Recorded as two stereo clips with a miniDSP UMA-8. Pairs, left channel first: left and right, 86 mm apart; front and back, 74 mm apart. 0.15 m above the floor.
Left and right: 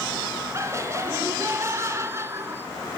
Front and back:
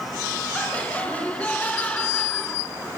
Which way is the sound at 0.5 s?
60° right.